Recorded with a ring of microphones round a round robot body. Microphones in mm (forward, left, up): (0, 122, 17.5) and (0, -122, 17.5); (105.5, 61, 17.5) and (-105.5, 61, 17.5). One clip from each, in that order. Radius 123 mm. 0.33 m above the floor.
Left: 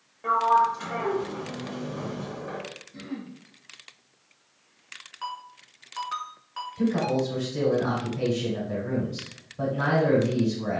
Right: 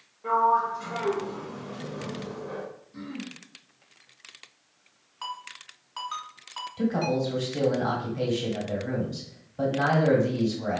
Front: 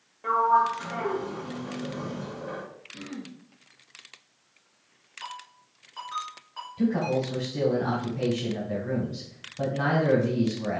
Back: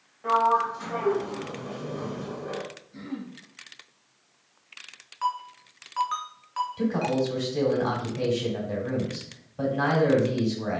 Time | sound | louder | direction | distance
0.2 | a sliding door | left 2 dB, front 1 dB | 70° left | 1.1 m
2.9 | throat clearing | even, even | 170° right | 2 m
5.2 | a ringtone | even, back 12 dB | 170° right | 1.6 m
6.8 | a man speaking | left 1 dB, front 2 dB | 145° right | 1.7 m